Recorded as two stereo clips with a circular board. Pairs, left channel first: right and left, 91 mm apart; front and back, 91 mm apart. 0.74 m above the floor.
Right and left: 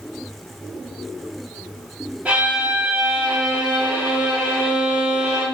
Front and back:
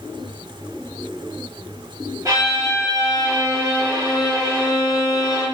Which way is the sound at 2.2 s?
160° left.